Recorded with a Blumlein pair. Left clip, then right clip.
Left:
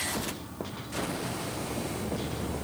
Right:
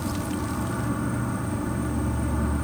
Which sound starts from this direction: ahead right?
An insect, at 0.0 s.